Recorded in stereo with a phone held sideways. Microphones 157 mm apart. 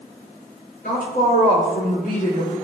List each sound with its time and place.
0.8 s a woman speaking: 75° left (ahead or behind), 3 m; by 2.5 s 60° left (ahead or behind), 3.5 m